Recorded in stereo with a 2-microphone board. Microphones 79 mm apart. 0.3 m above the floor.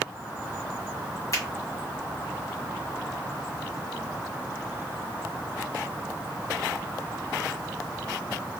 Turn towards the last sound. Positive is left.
turn(degrees=45)  # may be behind; listen again after turning